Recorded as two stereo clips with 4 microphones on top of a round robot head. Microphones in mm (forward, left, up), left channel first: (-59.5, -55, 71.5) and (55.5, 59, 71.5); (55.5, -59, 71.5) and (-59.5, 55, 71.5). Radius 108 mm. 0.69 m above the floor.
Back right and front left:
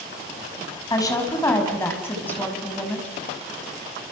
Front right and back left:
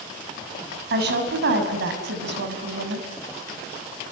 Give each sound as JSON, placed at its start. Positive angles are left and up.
{"t": 0.9, "sound": "a woman speaking", "azimuth_deg": 155, "distance_m": 7.5}